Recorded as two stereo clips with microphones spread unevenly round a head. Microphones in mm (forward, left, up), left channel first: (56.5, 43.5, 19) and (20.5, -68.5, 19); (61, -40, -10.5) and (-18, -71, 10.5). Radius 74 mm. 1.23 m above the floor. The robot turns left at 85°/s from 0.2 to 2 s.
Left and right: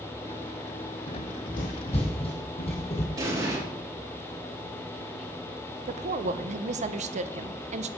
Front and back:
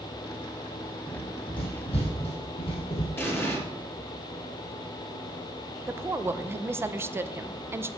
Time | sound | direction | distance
1.1 | running footsteps | 115° left | 3 m
3.2 | an explosion | 45° right | 5 m
5.9 | a woman speaking | 90° right | 0.9 m